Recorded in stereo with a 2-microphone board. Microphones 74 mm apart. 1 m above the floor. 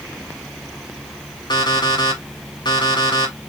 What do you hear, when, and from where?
1.5 s an alarm clock: 85° left, 1.5 m